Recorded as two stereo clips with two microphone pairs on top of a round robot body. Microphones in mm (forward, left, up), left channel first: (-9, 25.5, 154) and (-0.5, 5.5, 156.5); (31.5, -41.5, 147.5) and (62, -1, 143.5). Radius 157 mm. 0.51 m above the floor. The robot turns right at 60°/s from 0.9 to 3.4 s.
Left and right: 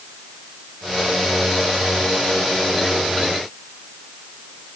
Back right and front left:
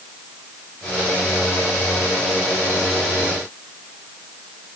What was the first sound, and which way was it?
Only background noise.